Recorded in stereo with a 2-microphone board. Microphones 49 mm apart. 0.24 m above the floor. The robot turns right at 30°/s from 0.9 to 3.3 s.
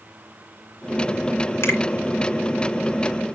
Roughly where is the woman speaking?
No woman speaking in this recording.